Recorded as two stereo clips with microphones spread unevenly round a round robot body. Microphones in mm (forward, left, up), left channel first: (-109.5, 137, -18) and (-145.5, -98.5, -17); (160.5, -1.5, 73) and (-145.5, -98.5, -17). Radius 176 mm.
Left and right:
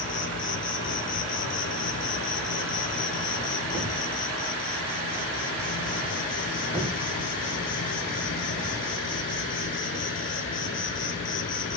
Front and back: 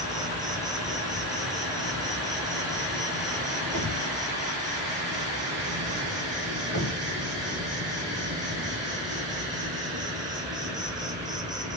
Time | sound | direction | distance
0.0 | an insect | 120° left | 1.1 m
3.7 | a thud | 20° right | 1.9 m